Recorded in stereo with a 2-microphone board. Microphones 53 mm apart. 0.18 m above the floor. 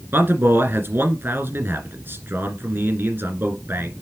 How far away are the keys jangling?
I don't hear keys jangling.